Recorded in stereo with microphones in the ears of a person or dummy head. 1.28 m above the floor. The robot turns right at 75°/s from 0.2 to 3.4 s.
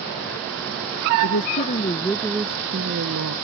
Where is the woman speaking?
105° left; by 3.4 s 95° right.